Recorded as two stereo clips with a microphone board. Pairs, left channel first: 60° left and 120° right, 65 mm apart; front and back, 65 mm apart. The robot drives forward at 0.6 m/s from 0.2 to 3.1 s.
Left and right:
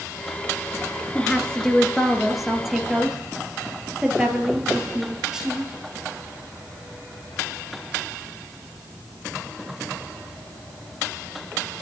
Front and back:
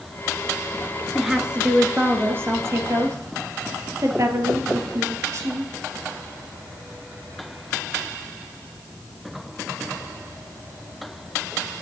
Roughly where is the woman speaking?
Left.